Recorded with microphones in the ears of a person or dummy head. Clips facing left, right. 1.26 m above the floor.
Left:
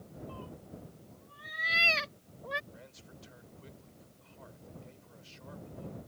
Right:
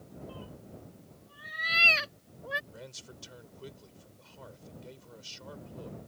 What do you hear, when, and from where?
0.3 s a cat meowing: 15° right (ahead or behind); by 2.6 s 5° right (ahead or behind)
2.7 s a man speaking: 60° right (ahead or behind)